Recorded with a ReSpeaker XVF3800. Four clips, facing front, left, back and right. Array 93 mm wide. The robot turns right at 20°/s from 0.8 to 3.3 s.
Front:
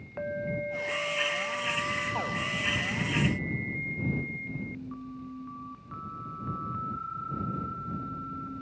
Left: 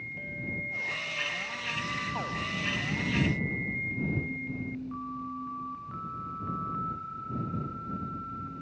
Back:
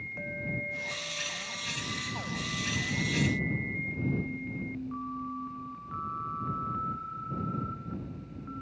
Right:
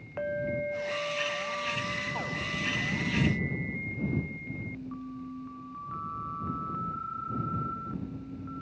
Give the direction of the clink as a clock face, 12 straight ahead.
2 o'clock.